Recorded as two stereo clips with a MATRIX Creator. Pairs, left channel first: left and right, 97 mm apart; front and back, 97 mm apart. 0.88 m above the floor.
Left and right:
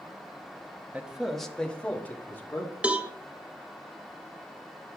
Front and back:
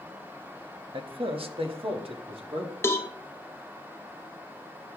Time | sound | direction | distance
0.9 | a man speaking | 165° right | 0.9 m
2.8 | a cowbell | 30° right | 0.7 m